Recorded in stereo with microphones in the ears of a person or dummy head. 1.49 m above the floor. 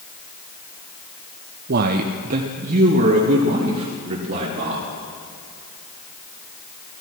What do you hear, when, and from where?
1.7 s a man speaking: 50° right (ahead or behind), 0.6 m; by 4.9 s 40° right (ahead or behind), 2.5 m